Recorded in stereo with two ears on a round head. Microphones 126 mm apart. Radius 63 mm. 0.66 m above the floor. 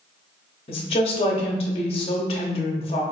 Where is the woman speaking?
40° left (ahead or behind), 0.8 m.